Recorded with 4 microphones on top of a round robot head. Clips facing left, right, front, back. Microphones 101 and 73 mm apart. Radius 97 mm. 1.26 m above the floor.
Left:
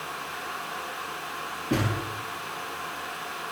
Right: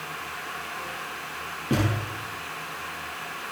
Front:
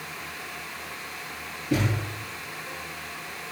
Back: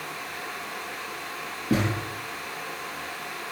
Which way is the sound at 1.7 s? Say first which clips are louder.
Right 1 dB, back 1 dB; 160° right.